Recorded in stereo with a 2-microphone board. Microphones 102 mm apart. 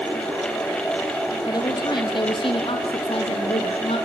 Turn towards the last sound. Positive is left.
turn(degrees=75)  # may be behind; listen again after turning